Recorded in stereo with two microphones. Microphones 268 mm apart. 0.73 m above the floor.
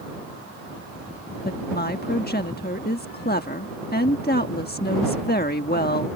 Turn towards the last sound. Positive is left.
turn(degrees=35)  # may be behind; listen again after turning